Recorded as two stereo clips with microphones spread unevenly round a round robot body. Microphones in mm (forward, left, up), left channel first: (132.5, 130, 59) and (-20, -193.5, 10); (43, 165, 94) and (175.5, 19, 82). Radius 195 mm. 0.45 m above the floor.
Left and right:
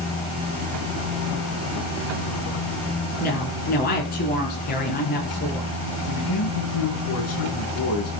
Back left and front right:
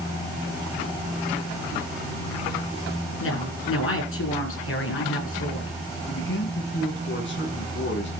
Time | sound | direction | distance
3.2 | a woman speaking | 130° left | 9.5 m
6.1 | a man speaking | 110° left | 6.5 m